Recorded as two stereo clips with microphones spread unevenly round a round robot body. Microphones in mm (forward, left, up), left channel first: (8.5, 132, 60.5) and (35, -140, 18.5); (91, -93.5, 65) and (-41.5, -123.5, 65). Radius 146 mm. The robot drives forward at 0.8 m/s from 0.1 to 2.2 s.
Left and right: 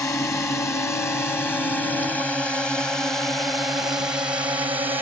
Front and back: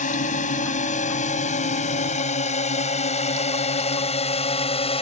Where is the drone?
15° left; by 5.0 s 10° right.